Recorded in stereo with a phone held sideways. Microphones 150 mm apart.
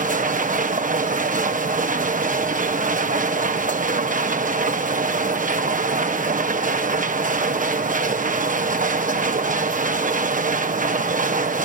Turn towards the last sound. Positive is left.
turn(degrees=-60)  # may be behind; listen again after turning